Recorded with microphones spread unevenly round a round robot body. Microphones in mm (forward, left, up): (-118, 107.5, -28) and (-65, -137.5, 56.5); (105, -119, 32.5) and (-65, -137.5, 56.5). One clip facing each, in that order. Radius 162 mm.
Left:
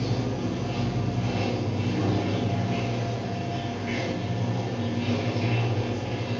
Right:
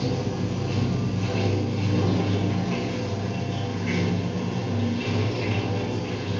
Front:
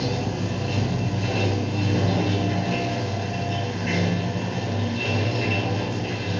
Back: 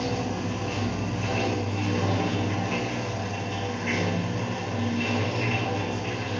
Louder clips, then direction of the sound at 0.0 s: Right 1 dB, front 2 dB; 35° right.